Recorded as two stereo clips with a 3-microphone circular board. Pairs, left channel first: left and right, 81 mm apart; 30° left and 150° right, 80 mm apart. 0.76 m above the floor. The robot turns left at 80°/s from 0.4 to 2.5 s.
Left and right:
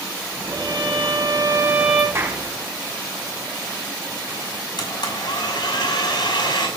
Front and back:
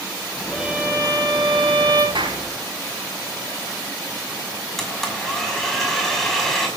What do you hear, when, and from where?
0.5 s a violin: 65° right, 7.5 m; by 2.0 s 170° left, 7.5 m
2.1 s a clap: 150° right, 5.5 m; by 2.4 s 170° right, 5.5 m
4.8 s a blender: 115° left, 5.5 m